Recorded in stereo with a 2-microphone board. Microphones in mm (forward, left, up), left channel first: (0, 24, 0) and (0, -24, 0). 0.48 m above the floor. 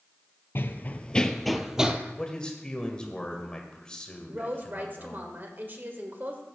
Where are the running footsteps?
50° left (ahead or behind), 0.7 m; by 2.0 s 20° right (ahead or behind), 0.9 m.